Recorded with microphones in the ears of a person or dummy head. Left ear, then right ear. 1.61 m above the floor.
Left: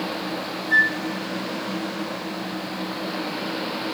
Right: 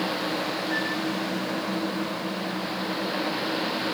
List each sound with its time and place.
0.7 s a flute: 55° left (ahead or behind), 1.1 m